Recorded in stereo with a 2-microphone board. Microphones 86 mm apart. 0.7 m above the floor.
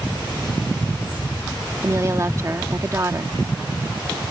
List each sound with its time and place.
1.8 s a woman speaking: 35° right (ahead or behind)